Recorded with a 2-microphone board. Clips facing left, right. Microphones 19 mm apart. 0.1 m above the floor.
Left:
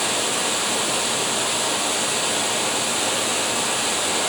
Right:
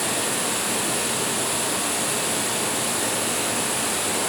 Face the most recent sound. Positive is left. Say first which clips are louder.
# left 3 dB
turn(degrees=35)  # may be behind; listen again after turning